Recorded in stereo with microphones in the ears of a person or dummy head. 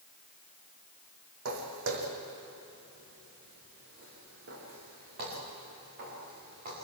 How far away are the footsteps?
About 4 m.